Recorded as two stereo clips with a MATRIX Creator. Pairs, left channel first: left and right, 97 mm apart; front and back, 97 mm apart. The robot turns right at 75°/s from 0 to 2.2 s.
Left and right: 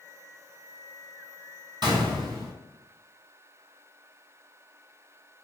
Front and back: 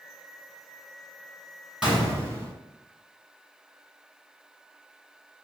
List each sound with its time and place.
1.8 s a gunshot: 100° right, 1.5 m; by 2.5 s 70° right, 1.5 m